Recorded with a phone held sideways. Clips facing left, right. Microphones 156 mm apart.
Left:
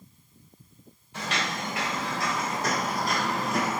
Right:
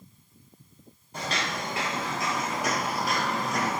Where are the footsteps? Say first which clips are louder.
Even; 40° right (ahead or behind), 1.3 m; by 3.8 s 10° left (ahead or behind), 1.3 m.